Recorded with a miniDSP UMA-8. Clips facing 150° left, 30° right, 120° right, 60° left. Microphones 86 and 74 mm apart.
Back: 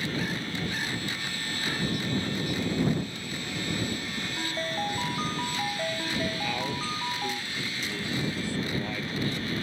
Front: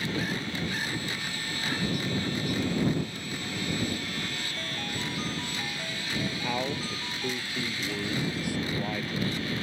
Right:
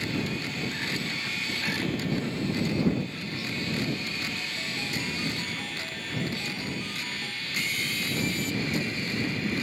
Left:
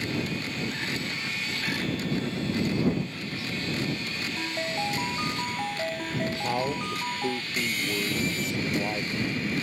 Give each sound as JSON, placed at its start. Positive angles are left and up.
{"t": 4.4, "sound": "a ringtone", "azimuth_deg": 100}
{"t": 6.4, "sound": "a man speaking", "azimuth_deg": 45}